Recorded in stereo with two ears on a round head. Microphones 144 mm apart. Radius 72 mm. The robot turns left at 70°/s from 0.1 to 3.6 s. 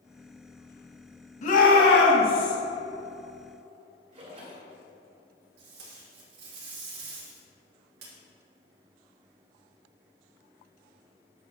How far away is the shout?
About 1.8 m.